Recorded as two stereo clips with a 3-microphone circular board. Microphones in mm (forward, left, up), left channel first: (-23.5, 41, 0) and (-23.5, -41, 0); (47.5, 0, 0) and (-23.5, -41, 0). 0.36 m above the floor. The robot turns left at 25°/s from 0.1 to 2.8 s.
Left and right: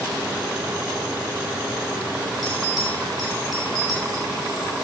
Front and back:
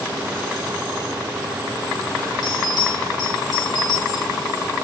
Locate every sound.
2.4 s a bell: 10° left, 2 m; by 4.2 s straight ahead, 2 m